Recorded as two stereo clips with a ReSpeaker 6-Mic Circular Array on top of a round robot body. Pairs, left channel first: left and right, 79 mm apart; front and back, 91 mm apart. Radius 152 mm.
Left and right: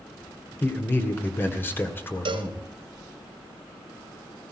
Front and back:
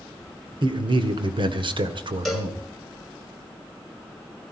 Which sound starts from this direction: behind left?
A man speaking, at 0.6 s.